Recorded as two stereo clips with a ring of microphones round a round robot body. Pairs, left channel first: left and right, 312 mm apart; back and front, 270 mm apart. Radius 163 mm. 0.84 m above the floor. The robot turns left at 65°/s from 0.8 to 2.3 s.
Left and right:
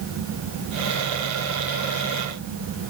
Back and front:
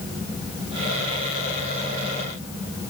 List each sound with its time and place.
Only background noise.